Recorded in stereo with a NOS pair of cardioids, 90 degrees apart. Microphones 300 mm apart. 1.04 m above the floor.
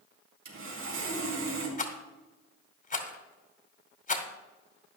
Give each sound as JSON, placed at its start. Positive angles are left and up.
{"t": 0.5, "sound": "sawing", "azimuth_deg": -45, "distance_m": 5.0}
{"t": 1.8, "sound": "a rattle", "azimuth_deg": 25, "distance_m": 2.5}